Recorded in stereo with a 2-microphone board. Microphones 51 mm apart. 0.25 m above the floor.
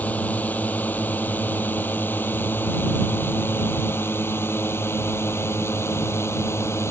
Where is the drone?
30° left (ahead or behind); by 6.9 s 55° left (ahead or behind).